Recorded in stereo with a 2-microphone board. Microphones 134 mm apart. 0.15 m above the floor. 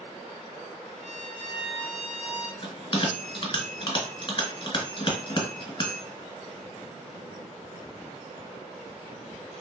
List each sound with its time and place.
1.0 s a violin: 5° right (ahead or behind), 0.8 m
2.6 s a bell: 35° left (ahead or behind), 1.1 m